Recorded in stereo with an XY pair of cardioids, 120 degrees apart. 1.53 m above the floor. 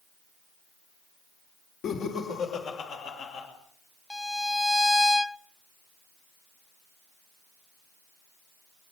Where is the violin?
10° left, 0.5 m.